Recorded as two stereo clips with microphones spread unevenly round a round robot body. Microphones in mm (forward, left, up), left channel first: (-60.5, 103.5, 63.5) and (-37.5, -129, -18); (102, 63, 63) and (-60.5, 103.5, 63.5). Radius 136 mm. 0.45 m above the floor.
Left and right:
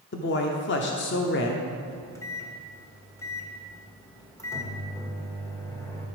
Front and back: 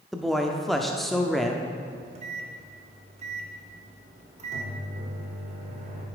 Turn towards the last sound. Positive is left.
turn(degrees=-170)